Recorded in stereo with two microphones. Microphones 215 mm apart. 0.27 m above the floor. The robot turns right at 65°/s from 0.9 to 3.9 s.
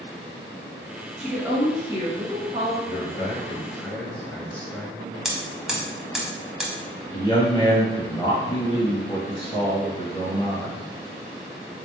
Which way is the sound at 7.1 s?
25° left (ahead or behind).